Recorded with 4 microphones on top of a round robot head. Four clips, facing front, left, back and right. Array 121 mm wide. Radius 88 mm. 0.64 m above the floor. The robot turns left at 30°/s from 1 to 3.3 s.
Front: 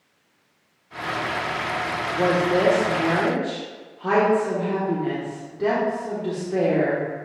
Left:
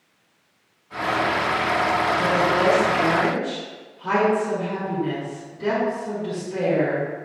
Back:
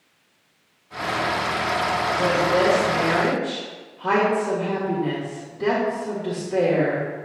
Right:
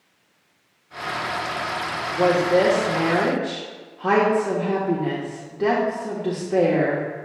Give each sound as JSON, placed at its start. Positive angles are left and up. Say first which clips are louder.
{"t": 2.1, "sound": "a woman speaking", "louder": "right 2 dB, front 2 dB", "azimuth_deg": -45, "distance_m": 1.6}